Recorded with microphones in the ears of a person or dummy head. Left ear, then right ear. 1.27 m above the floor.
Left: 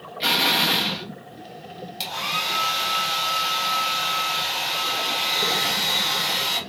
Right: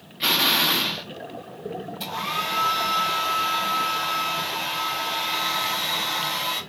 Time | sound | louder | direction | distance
0.2 | an explosion | even | centre (ahead or behind) | 0.9 m
2.0 | a hair dryer | left 2 dB | 75° left (ahead or behind) | 1.9 m